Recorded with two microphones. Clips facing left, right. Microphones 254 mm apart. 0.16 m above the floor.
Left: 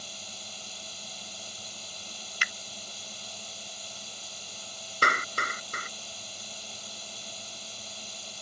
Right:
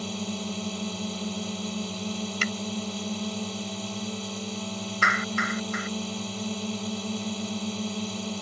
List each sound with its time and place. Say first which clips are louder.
0.0 s a drone: right 19 dB; 70° right (ahead or behind)
2.4 s a finger snap: right 15 dB; 50° right (ahead or behind)
5.0 s a clap: right 3 dB; 40° left (ahead or behind)